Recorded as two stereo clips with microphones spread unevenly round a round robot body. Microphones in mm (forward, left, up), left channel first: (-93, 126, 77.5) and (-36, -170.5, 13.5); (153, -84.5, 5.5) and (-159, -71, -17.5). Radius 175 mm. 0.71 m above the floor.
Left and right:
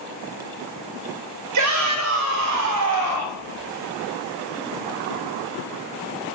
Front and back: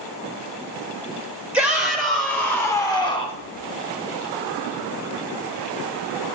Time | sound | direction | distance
1.5 | a shout | 95° right | 3.5 m